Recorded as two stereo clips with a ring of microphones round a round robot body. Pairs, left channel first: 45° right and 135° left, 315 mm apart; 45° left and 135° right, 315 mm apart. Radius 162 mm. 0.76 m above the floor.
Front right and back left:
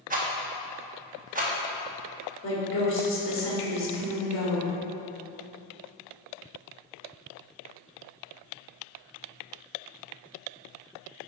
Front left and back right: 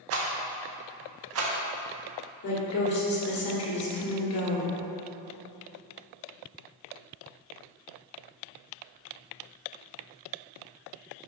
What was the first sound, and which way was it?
A rattle, 165° right.